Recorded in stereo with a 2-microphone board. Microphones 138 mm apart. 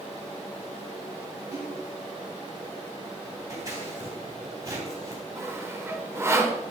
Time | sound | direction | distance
1.5 | a splash | 70° right (ahead or behind) | 4.5 m
3.5 | scissors | 25° right (ahead or behind) | 3 m
5.4 | sawing | 20° right (ahead or behind) | 1.1 m